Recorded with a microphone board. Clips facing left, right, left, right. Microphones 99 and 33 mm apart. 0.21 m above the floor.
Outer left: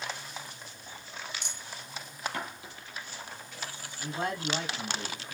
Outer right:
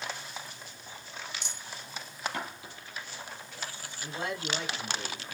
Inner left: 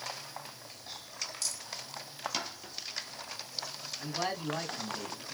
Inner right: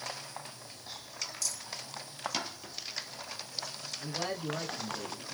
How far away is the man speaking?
About 1.3 m.